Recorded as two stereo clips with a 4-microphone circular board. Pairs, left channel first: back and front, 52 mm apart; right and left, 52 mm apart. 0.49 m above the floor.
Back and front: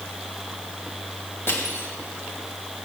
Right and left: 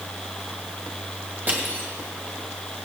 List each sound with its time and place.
1.5 s crushing: 140° left, 2.5 m